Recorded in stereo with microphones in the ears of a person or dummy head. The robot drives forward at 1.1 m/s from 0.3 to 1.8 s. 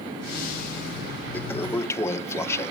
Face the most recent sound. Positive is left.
turn(degrees=15)  # may be behind; listen again after turning